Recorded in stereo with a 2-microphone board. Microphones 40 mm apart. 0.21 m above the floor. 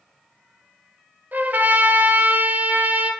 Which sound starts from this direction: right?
A trumpet, at 1.3 s.